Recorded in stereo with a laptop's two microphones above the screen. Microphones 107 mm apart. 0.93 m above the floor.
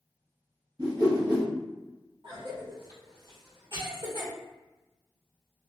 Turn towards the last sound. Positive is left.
turn(degrees=-50)  # may be behind; listen again after turning